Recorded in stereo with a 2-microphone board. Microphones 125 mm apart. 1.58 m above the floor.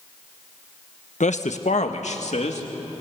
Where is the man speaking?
70° left (ahead or behind), 1.3 m; by 2.7 s 65° left (ahead or behind), 3 m.